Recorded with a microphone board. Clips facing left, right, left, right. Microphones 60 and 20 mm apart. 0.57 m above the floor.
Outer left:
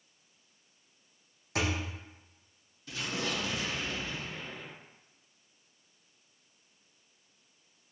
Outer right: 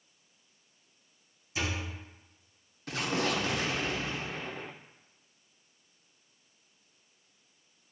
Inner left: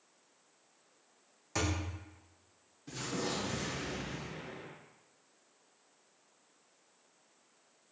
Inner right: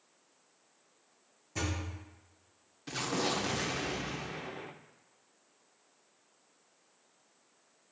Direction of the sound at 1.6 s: 65° left (ahead or behind).